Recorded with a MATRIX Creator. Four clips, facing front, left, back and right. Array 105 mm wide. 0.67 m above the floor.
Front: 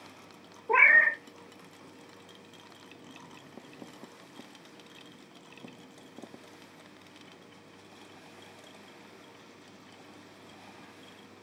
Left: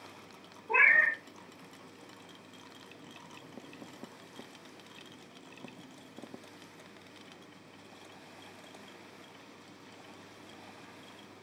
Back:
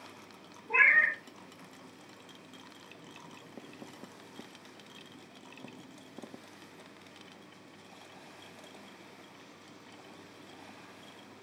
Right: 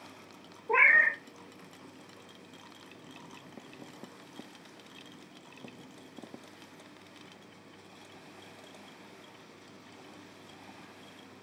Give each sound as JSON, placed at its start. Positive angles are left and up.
{"t": 0.7, "sound": "a cat meowing", "azimuth_deg": -20, "distance_m": 0.6}